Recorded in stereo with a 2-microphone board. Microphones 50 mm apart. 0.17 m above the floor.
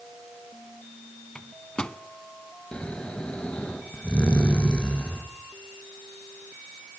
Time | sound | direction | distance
1.4 | a microwave | 20° left (ahead or behind) | 1.0 m
2.7 | snoring | 25° left (ahead or behind) | 3.5 m